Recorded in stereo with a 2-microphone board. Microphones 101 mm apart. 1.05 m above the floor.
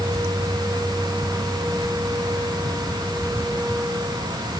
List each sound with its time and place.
Only background noise.